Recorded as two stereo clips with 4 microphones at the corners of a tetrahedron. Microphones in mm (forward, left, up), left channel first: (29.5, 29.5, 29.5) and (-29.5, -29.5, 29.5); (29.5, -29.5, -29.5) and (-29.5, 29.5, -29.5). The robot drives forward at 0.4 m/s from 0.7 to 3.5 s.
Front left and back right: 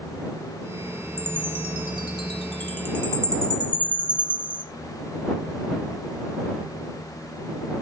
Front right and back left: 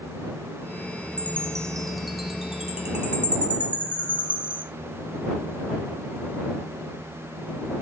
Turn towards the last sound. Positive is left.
turn(degrees=-150)